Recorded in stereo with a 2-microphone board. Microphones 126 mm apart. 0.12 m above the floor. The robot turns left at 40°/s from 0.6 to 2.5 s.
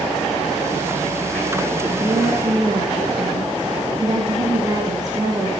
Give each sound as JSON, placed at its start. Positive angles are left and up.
{"t": 2.0, "sound": "a woman speaking", "side_deg": -15, "distance_m": 2.5}